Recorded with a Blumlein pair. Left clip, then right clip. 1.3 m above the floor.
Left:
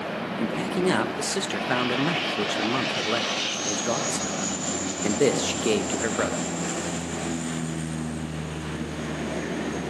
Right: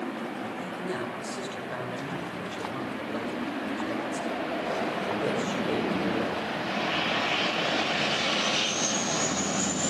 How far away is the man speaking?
About 1.4 m.